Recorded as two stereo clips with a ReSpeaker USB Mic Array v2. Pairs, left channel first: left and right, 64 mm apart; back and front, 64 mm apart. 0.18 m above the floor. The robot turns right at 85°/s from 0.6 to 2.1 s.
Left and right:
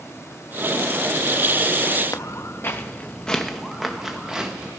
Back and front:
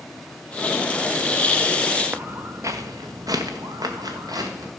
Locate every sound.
2.1 s footsteps: 60° left, 0.9 m; by 4.7 s 10° right, 2.0 m